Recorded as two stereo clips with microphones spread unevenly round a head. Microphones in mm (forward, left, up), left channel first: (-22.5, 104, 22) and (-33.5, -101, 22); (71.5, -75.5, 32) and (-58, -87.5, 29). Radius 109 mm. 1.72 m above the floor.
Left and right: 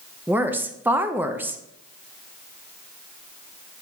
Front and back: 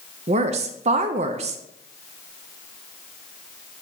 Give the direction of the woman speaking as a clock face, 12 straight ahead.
6 o'clock.